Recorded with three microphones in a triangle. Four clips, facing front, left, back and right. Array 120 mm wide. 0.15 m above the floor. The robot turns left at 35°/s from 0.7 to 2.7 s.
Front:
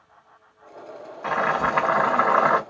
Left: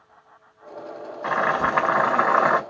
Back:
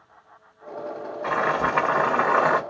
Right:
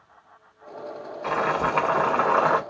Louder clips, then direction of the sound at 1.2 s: Left 2 dB, front 1 dB; 95° left.